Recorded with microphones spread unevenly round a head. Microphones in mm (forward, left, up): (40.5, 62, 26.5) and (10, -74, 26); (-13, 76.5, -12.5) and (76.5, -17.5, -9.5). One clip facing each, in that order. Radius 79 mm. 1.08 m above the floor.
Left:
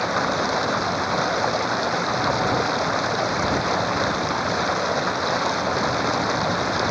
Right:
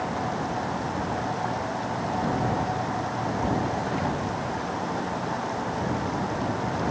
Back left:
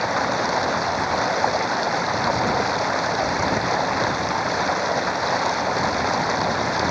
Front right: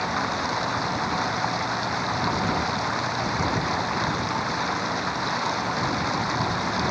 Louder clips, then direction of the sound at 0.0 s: Left 5 dB, back left 5 dB; 100° left.